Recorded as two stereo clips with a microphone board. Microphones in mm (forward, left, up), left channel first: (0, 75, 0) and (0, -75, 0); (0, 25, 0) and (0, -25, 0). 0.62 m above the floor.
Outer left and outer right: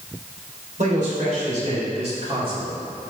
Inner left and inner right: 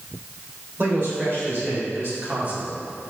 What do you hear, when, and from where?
0.8 s a man speaking: 60° right (ahead or behind), 3 m; by 2.8 s 30° right (ahead or behind), 1.6 m